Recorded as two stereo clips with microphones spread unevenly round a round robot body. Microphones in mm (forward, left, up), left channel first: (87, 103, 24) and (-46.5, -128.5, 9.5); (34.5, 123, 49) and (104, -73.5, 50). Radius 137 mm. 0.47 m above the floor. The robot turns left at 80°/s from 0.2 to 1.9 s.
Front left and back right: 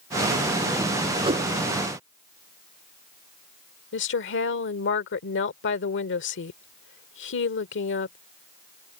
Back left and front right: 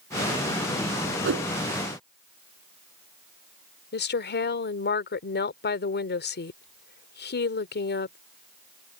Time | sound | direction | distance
1.2 | a whoosh | 45° right | ?
3.9 | a woman speaking | 95° left | ?